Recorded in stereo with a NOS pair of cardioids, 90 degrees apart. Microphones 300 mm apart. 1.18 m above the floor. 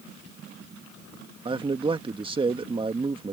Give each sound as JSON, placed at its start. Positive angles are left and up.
{"t": 1.4, "sound": "a man speaking", "azimuth_deg": -20}